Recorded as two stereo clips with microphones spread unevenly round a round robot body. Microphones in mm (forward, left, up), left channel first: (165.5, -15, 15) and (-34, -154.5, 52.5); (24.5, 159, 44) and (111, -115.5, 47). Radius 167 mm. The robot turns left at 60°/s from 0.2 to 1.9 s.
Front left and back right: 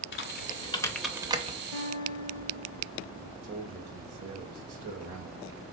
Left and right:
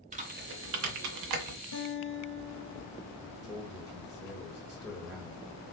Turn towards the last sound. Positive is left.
turn(degrees=-160)